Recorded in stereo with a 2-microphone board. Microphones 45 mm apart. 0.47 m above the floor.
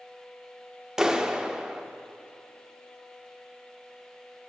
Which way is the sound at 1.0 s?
10° right (ahead or behind).